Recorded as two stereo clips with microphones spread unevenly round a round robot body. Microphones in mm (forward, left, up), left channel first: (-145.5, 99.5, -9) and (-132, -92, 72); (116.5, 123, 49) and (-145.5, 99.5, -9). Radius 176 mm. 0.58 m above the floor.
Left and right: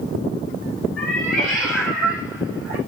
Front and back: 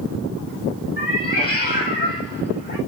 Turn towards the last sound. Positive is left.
turn(degrees=55)